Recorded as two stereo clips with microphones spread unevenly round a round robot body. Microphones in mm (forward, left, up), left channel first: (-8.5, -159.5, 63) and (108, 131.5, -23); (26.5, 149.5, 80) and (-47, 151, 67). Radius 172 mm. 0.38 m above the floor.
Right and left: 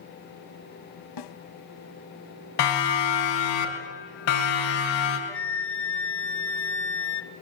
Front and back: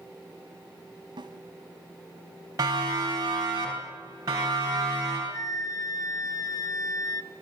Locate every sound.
1.2 s a snare drum: 145° right, 0.9 m
2.6 s a siren: 135° right, 4 m; by 5.2 s 125° right, 6.5 m
5.3 s a flute: 10° right, 1.1 m